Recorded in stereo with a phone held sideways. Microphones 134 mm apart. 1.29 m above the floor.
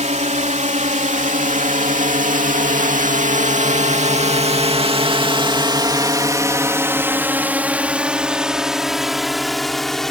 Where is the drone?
65° right (ahead or behind); by 10.1 s 5° left (ahead or behind).